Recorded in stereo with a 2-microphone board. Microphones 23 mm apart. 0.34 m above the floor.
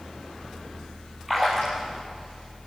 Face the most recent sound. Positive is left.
turn(degrees=0)  # may be behind; listen again after turning